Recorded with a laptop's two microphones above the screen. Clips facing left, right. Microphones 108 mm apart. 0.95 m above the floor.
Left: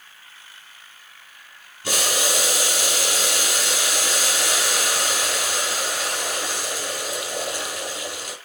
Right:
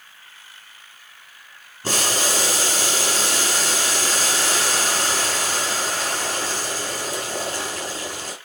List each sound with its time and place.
1.8 s boiling: 45° right (ahead or behind), 5.5 m